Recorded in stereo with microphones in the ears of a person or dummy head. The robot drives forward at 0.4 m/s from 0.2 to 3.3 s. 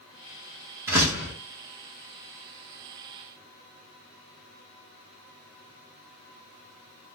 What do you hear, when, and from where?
0.9 s a door slam: 15° right (ahead or behind), 0.6 m